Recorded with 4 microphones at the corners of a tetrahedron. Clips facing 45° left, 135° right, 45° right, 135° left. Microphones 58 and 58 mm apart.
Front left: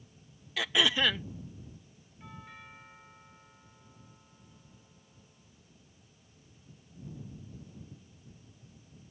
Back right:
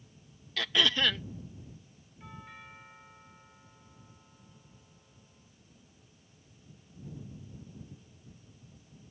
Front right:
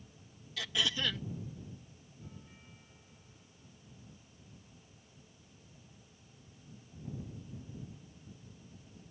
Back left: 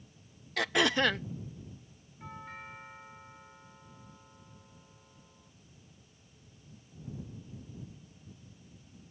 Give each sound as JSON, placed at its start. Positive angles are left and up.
{"t": 0.6, "sound": "throat clearing", "azimuth_deg": 125}
{"t": 2.2, "sound": "a doorbell", "azimuth_deg": 135}